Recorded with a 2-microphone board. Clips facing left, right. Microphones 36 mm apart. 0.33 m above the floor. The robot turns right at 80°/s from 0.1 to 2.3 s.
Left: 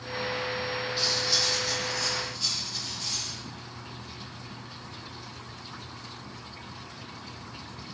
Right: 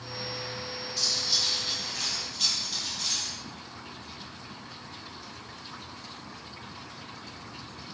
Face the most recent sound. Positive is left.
turn(degrees=-100)